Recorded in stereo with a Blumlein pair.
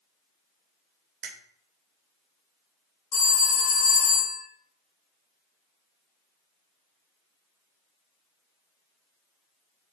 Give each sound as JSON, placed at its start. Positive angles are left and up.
{"t": 1.2, "sound": "a finger snap", "azimuth_deg": -40, "distance_m": 0.9}
{"t": 3.1, "sound": "a phone ringing", "azimuth_deg": 30, "distance_m": 1.6}